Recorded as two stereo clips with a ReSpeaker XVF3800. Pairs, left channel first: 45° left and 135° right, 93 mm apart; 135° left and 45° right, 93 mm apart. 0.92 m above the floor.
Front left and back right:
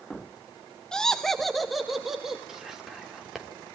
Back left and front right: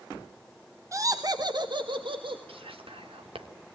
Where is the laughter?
30° right, 0.8 m; by 2.4 s 50° right, 1.5 m.